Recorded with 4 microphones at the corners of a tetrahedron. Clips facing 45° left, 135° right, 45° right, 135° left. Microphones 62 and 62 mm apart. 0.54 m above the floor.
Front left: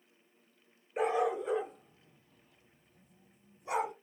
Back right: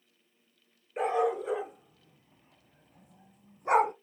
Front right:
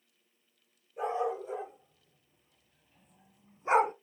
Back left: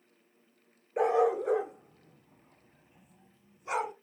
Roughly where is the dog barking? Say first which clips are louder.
Back right 2 dB, back left 7 dB; behind left.